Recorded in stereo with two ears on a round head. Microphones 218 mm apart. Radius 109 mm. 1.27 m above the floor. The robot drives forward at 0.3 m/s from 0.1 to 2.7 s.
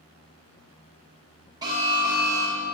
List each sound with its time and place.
1.6 s an alarm: 15° right (ahead or behind), 1.4 m